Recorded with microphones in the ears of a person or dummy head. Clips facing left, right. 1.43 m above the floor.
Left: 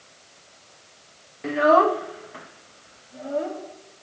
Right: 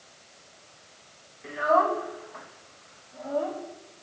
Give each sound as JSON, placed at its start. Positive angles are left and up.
{"t": 1.4, "sound": "a child speaking", "side_deg": 70, "distance_m": 0.7}